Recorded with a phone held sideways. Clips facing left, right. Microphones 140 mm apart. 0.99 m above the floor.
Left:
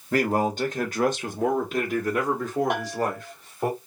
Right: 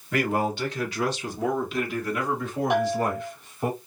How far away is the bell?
About 1.5 m.